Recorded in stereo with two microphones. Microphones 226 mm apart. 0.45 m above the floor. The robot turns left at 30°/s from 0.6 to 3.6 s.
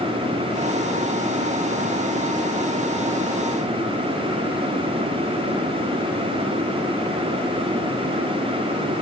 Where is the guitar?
I don't hear a guitar.